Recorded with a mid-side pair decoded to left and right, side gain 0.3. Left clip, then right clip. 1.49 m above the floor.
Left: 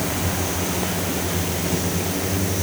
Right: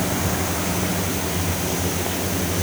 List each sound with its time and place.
Only background noise.